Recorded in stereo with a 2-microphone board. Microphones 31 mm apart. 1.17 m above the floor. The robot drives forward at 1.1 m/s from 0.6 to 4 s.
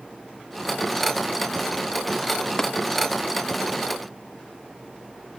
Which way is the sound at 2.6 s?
20° left (ahead or behind).